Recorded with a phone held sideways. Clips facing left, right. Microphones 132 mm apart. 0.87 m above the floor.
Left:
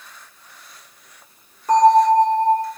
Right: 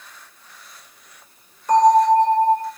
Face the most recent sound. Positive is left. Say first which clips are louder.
# left 1 dB
turn(degrees=40)  # may be behind; listen again after turning